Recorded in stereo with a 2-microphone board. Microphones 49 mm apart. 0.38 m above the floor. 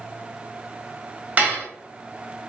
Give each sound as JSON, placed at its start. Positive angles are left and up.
{"t": 1.4, "sound": "dishes clattering", "side_deg": -30, "distance_m": 1.2}